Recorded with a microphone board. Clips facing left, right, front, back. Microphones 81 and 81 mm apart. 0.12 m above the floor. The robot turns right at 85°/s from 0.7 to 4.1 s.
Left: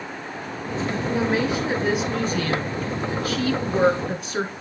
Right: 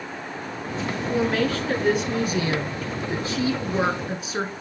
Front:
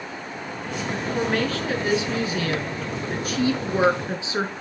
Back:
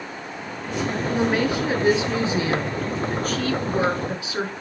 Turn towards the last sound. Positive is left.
turn(degrees=-5)